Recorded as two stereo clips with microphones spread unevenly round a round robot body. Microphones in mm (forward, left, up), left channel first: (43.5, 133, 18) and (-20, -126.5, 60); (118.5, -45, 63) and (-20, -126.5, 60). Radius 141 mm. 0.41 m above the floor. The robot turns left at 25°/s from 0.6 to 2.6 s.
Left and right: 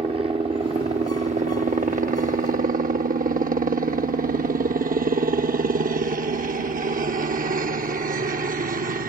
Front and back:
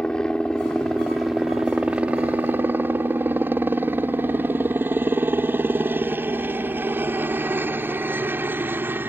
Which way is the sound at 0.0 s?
45° right.